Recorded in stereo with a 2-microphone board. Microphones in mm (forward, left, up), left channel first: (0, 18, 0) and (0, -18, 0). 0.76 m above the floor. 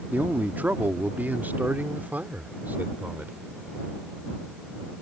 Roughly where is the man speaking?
Right.